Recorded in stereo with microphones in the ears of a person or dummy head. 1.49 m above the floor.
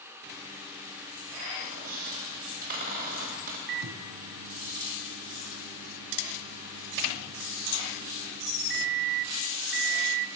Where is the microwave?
65° right (ahead or behind), 0.5 m.